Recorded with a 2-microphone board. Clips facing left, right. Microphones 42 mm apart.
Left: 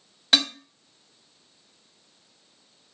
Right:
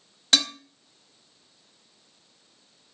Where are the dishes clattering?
15° left (ahead or behind), 1.0 m.